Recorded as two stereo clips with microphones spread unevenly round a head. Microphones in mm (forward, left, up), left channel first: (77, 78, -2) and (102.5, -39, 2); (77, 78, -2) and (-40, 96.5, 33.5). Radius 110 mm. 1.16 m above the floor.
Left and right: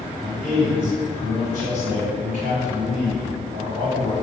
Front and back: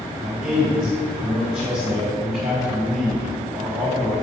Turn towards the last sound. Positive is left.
turn(degrees=-120)